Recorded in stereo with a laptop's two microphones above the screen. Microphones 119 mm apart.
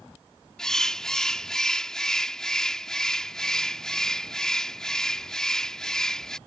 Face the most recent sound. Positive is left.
turn(degrees=5)  # may be behind; listen again after turning